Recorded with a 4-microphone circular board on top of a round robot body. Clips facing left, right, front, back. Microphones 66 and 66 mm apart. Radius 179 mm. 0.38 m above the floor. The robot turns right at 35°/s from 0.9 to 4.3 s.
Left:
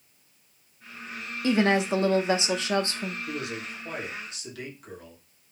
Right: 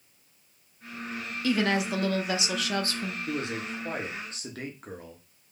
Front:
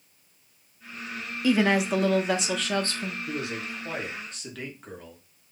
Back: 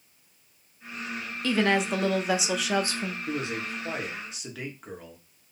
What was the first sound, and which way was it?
A woman speaking, 70° left.